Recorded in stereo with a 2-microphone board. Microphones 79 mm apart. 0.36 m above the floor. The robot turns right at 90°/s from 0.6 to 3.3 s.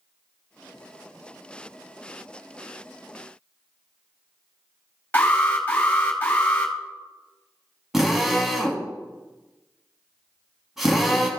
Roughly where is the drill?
Centre.